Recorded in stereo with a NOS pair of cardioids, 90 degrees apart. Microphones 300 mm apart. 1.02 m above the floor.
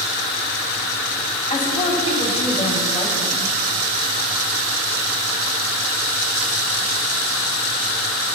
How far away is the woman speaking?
About 5.5 m.